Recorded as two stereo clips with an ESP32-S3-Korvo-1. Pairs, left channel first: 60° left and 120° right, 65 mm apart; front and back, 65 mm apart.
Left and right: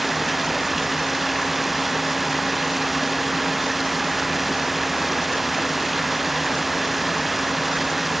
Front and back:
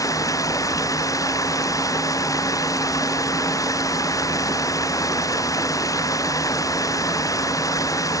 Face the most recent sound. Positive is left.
turn(degrees=-30)